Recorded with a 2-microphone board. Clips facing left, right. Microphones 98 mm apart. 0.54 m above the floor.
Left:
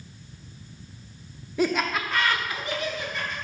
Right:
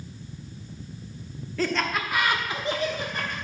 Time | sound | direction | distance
1.6 | laughter | 15° left (ahead or behind) | 0.8 m